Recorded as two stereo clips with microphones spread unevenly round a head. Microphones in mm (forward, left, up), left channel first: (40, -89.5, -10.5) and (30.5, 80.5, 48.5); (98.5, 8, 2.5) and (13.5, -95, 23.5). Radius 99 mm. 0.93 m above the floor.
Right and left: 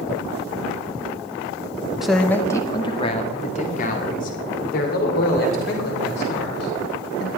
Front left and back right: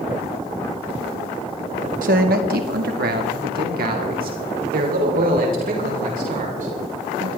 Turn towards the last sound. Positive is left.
turn(degrees=-115)